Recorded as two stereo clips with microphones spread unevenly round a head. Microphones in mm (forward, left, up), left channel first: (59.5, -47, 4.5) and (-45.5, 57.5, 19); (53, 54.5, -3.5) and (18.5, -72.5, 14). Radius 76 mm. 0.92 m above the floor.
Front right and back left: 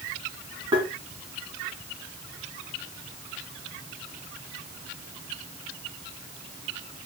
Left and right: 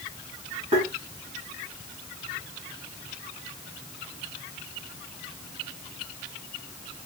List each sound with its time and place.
0.7 s tapping: 160° right, 1.9 m